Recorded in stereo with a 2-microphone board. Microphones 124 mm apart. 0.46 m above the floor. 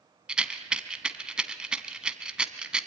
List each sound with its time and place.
0.3 s a rattle: 10° right (ahead or behind), 1.1 m